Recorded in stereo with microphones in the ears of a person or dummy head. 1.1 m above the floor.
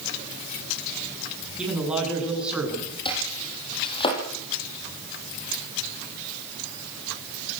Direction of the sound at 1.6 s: 5° right (ahead or behind).